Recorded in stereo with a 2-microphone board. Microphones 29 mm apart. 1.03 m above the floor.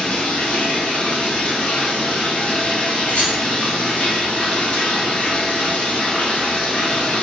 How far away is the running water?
About 0.9 m.